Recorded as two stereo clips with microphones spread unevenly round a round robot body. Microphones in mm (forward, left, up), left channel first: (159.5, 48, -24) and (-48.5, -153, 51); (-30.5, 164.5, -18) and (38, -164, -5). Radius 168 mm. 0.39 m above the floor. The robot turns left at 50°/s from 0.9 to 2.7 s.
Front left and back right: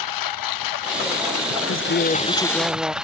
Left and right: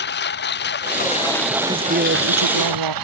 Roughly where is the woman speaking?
Ahead.